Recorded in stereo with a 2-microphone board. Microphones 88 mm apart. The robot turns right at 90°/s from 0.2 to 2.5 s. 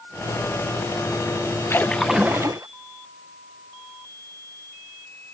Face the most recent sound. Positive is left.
turn(degrees=-140)